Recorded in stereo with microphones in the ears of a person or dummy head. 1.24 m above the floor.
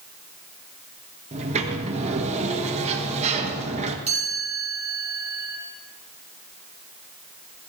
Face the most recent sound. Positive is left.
turn(degrees=-35)  # may be behind; listen again after turning